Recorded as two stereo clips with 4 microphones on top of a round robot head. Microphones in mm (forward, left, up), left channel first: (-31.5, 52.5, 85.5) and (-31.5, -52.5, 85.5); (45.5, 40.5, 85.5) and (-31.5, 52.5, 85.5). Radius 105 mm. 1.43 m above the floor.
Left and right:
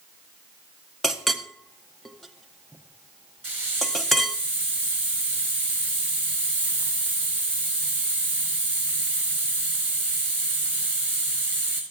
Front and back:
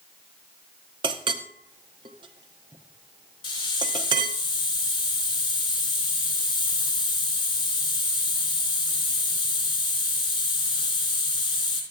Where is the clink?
175° left, 0.6 m.